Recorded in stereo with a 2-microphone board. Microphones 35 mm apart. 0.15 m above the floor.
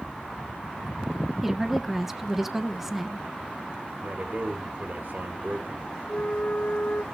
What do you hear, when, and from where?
1.4 s a woman speaking: 10° right (ahead or behind), 1.4 m
4.0 s a man speaking: 60° right (ahead or behind), 3 m
6.1 s a flute: 50° left (ahead or behind), 1.5 m